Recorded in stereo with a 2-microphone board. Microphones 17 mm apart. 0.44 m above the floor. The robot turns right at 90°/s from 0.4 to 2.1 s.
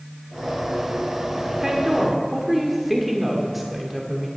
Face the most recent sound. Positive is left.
turn(degrees=-5)  # may be behind; listen again after turning